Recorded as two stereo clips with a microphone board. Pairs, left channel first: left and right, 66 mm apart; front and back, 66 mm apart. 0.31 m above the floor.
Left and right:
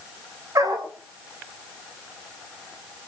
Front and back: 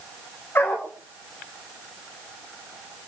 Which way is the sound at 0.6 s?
60° right.